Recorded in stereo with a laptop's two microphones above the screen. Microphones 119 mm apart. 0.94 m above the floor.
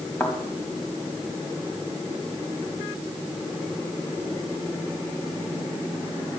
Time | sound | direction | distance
0.2 | a thud | 15° left (ahead or behind) | 2.5 m